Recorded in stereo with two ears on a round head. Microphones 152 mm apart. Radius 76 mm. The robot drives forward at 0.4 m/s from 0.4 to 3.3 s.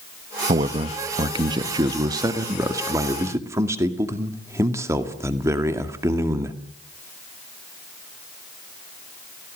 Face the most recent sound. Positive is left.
turn(degrees=-20)  # may be behind; listen again after turning